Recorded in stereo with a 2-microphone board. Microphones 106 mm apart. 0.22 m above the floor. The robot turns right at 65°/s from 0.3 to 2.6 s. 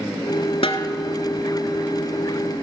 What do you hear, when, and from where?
0.6 s a snare drum: 60° left (ahead or behind), 0.9 m; by 0.9 s 45° left (ahead or behind), 0.9 m